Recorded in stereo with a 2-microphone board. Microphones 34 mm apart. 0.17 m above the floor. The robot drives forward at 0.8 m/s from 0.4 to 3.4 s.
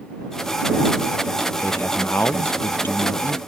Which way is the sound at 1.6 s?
70° left (ahead or behind).